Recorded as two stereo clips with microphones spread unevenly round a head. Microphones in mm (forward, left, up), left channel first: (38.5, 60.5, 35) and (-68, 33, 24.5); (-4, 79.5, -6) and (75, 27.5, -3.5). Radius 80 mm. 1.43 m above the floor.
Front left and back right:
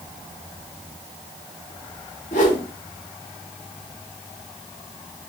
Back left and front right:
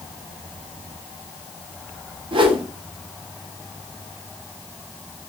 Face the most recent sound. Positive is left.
turn(degrees=-10)